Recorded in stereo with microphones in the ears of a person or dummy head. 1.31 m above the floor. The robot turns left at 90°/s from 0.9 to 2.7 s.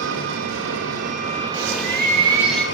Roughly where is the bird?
Right.